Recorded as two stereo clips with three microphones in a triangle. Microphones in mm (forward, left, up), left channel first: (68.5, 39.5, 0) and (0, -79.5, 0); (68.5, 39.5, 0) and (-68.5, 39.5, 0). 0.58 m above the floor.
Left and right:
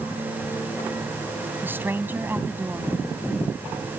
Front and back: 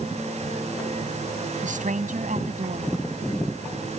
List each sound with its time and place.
1.6 s a woman speaking: 165° left